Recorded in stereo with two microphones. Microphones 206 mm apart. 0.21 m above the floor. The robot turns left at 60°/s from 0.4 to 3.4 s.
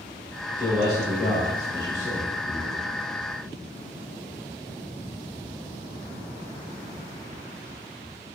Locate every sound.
0.6 s a man speaking: 10° left (ahead or behind), 1.0 m; by 3.0 s centre (ahead or behind), 1.0 m